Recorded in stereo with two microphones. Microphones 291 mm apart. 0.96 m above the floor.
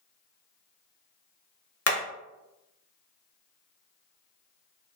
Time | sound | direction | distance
1.9 | hammering | 55° left (ahead or behind) | 0.6 m